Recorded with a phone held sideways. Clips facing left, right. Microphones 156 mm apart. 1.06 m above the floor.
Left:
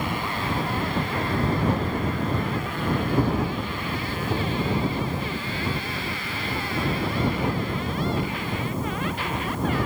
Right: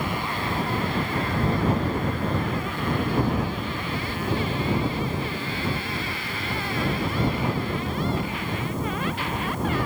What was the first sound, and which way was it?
Only background noise.